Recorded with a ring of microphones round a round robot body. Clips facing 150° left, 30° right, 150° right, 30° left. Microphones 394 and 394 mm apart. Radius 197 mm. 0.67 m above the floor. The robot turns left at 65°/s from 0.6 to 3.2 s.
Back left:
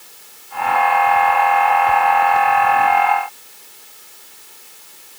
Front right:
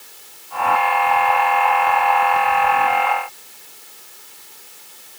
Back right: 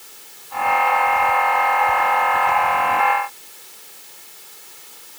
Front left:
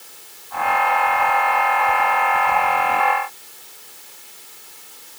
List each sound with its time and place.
Only background noise.